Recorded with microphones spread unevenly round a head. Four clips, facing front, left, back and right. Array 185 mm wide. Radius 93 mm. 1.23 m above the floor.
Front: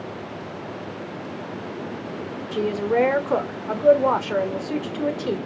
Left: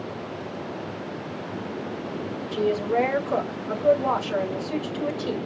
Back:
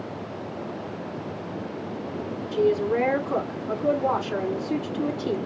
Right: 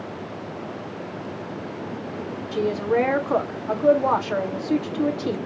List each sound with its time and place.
2.5 s a woman speaking: 35° right, 1.9 m